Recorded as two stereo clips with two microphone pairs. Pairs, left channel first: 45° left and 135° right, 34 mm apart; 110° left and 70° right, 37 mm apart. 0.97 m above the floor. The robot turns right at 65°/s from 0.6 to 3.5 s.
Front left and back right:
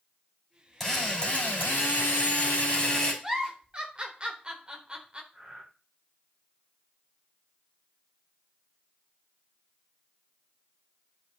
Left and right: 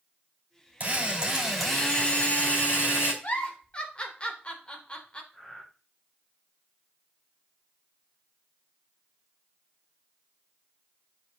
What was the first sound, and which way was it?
A drill, 30° right.